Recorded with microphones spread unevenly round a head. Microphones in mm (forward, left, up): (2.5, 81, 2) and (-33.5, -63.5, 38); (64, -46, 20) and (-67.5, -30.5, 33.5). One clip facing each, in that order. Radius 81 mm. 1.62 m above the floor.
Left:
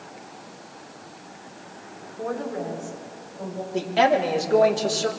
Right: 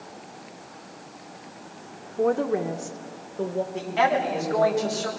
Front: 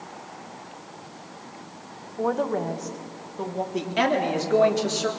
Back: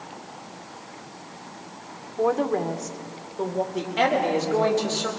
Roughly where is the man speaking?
Ahead.